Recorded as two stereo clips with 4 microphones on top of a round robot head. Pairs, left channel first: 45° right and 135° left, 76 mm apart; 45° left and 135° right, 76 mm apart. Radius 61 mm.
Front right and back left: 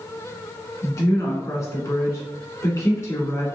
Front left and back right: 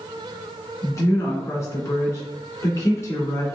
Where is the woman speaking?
Straight ahead, 1.8 m.